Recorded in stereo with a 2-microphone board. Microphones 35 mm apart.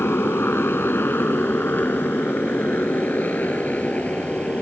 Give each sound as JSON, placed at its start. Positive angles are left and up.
{"t": 0.0, "sound": "a motorcycle", "side_deg": 80}